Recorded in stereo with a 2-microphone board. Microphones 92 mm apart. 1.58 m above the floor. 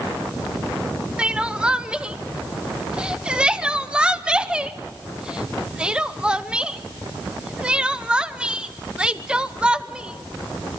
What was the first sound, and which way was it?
Crying, 10° right (ahead or behind).